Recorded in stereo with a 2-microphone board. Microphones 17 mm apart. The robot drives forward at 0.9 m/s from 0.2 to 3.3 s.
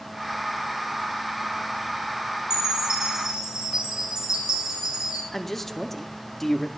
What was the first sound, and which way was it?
A chime, 45° right (ahead or behind).